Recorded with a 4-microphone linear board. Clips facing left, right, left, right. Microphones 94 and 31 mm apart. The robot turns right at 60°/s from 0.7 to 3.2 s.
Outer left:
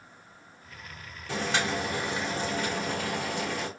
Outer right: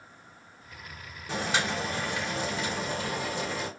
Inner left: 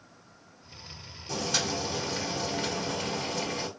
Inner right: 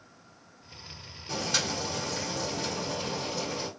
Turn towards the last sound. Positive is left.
turn(degrees=95)